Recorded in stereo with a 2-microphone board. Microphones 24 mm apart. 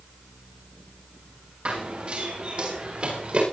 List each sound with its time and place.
1.6 s running footsteps: 50° right (ahead or behind), 8.5 m; by 3.4 s 55° right (ahead or behind), 10.5 m